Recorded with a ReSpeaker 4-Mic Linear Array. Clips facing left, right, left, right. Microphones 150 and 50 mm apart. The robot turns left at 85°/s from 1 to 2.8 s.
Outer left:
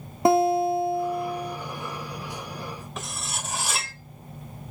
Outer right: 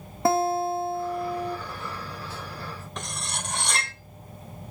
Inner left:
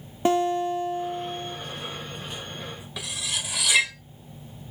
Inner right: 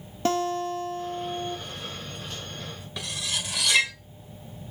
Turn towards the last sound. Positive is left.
turn(degrees=5)  # may be behind; listen again after turning